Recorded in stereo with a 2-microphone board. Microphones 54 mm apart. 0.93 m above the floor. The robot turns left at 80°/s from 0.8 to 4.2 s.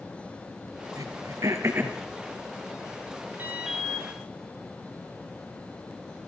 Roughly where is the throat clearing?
Right.